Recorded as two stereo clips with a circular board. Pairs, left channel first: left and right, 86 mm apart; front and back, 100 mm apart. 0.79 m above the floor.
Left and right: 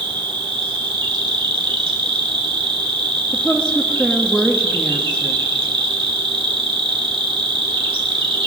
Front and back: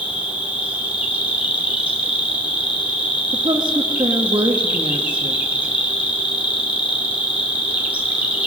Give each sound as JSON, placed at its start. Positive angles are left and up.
{"t": 0.0, "sound": "an insect", "azimuth_deg": -105, "distance_m": 1.5}
{"t": 3.3, "sound": "a woman speaking", "azimuth_deg": 165, "distance_m": 1.1}